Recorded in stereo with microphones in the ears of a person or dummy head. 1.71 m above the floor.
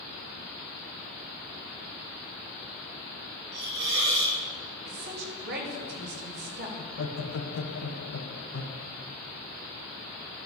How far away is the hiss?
About 4 m.